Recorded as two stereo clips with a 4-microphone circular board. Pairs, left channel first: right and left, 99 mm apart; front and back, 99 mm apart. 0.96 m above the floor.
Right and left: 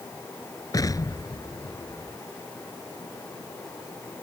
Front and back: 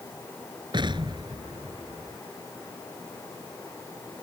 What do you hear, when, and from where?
0.7 s an explosion: 140° right